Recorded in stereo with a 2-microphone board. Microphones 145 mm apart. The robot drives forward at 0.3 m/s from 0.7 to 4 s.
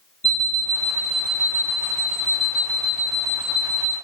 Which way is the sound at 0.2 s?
50° right (ahead or behind).